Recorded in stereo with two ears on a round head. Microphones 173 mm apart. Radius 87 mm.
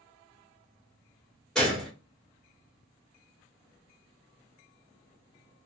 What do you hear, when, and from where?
1.6 s a gunshot: 5° left (ahead or behind), 1.2 m